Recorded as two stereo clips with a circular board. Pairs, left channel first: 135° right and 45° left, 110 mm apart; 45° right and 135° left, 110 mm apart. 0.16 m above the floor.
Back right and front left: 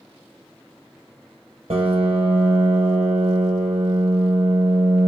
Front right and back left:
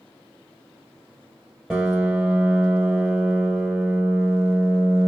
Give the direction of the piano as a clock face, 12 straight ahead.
10 o'clock.